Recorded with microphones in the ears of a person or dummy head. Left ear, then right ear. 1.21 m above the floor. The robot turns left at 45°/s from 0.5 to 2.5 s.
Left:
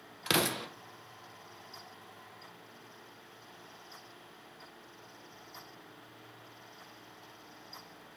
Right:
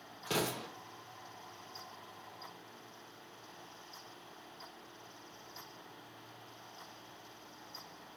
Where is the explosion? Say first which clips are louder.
Left 6 dB; 60° left (ahead or behind), 0.6 m; by 0.7 s 50° left (ahead or behind), 0.6 m.